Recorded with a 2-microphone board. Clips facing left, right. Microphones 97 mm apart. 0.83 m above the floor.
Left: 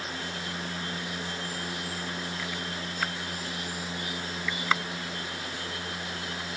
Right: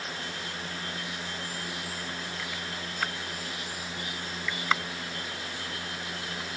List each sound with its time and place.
Only background noise.